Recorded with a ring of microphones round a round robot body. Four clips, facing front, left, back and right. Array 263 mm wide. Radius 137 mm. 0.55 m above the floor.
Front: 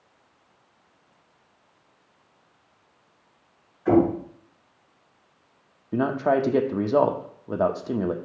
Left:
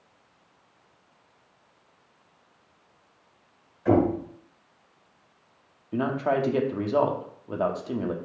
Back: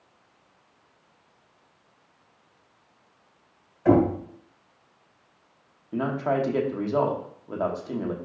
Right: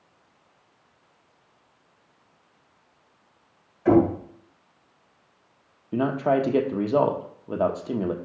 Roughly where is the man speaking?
Ahead right.